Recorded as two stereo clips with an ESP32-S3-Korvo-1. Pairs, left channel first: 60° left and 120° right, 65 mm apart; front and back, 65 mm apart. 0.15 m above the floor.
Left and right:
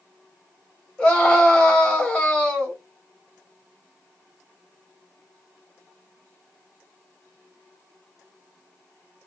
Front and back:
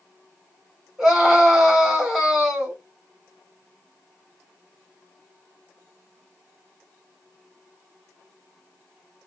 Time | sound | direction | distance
1.0 | a scream | 110° left | 1.7 m